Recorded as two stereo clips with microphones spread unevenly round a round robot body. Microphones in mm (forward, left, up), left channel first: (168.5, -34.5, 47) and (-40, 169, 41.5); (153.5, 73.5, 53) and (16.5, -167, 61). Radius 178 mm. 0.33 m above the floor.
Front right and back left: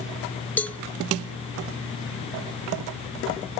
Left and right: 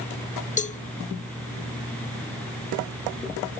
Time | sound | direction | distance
0.6 | a cowbell | 40° left | 0.9 m